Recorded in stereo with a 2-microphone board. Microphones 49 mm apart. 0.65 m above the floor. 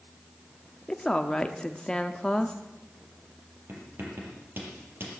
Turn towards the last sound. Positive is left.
turn(degrees=-50)  # may be behind; listen again after turning